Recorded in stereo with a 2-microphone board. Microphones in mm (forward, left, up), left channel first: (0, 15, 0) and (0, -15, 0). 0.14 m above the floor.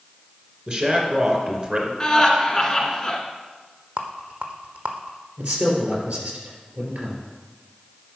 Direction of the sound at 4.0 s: 55° right (ahead or behind).